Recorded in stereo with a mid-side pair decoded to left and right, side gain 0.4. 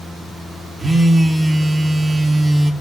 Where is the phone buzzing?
35° right, 0.9 m.